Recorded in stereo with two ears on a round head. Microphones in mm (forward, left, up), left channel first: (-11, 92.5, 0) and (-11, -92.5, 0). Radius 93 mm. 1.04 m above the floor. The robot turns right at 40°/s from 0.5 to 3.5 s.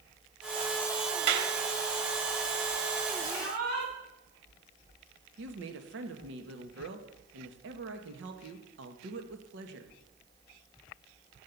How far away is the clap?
About 2 m.